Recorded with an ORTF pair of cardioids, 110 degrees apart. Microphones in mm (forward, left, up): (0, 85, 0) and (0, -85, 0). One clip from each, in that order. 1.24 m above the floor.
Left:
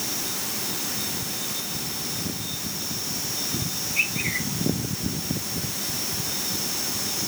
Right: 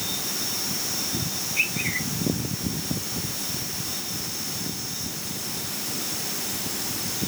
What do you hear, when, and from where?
Only background noise.